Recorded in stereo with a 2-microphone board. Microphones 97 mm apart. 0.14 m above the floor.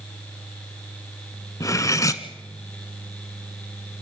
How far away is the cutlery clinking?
About 0.9 m.